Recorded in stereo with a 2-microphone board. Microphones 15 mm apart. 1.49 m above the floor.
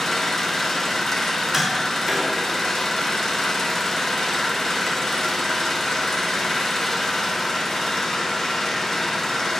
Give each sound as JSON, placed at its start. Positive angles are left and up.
{"t": 0.0, "sound": "an engine running", "side_deg": 30, "distance_m": 3.0}
{"t": 1.5, "sound": "tapping", "side_deg": -25, "distance_m": 5.5}